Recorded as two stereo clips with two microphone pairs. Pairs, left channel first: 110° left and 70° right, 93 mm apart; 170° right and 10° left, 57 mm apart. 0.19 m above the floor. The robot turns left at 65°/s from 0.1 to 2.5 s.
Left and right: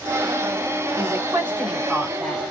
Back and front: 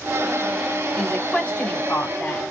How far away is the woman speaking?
About 1.2 m.